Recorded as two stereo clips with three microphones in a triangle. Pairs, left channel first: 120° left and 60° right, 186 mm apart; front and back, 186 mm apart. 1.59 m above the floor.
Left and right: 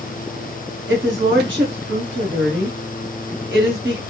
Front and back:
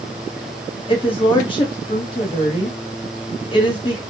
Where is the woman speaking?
65° right, 1.1 m.